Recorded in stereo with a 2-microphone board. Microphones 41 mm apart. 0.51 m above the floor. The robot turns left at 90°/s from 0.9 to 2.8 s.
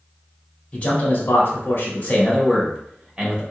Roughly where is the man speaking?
Behind left.